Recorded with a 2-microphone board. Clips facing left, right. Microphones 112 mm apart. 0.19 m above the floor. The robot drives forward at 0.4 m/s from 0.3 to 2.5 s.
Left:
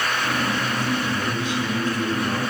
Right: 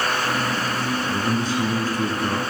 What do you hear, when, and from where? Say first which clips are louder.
1.1 s a man speaking: right 2 dB; 40° right (ahead or behind), 2.0 m; by 2.4 s 35° right (ahead or behind), 2 m